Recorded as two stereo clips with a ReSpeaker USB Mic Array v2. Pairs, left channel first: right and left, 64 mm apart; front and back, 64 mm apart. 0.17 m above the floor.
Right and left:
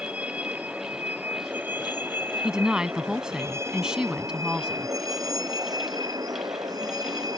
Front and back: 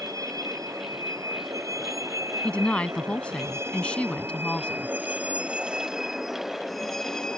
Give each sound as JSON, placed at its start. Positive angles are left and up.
{"t": 0.0, "sound": "a vehicle", "azimuth_deg": 160}
{"t": 2.4, "sound": "a woman speaking", "azimuth_deg": 30}